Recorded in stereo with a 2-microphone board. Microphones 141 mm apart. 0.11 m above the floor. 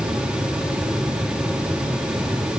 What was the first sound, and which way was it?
Only background noise.